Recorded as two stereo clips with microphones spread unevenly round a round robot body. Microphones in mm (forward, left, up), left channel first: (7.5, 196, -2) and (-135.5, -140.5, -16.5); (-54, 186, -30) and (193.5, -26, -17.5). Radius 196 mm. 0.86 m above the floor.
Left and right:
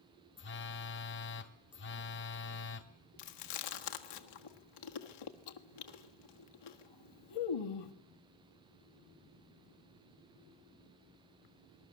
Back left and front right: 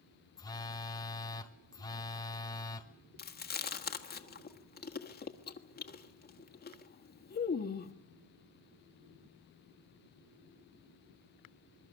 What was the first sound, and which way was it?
A phone buzzing, 80° left.